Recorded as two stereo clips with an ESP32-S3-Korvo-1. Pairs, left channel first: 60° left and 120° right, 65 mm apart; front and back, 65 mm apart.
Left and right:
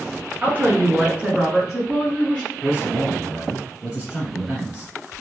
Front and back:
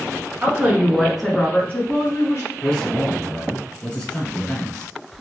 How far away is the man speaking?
About 1.5 m.